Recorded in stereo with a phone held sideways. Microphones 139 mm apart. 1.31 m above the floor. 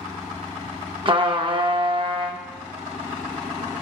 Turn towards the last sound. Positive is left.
turn(degrees=-40)  # may be behind; listen again after turning